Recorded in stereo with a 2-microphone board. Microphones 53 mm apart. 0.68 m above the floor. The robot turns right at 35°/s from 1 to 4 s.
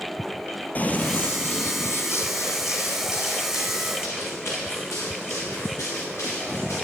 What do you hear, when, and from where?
0.8 s running footsteps: 30° left (ahead or behind), 0.8 m; by 6.8 s 60° left (ahead or behind), 4.5 m